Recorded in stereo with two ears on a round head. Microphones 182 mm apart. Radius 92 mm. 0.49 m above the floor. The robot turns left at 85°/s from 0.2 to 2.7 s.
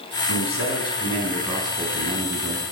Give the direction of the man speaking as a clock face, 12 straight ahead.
9 o'clock.